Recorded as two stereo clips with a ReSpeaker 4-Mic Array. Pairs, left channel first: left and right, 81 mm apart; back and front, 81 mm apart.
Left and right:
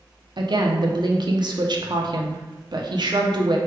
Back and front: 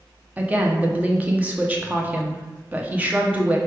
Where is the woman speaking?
70° right, 0.7 m.